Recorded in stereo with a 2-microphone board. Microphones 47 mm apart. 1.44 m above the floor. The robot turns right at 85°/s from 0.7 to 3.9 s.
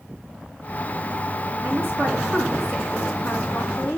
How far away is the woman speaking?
About 3.5 m.